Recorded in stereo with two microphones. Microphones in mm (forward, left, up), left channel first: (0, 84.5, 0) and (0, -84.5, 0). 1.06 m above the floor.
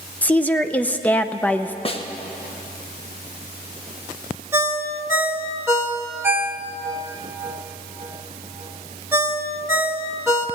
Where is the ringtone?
15° right (ahead or behind), 1.2 m.